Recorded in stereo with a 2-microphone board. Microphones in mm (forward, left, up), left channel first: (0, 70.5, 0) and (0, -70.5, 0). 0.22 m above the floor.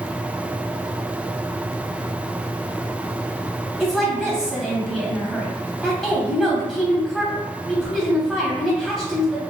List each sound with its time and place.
3.8 s a woman speaking: 5° left (ahead or behind), 0.9 m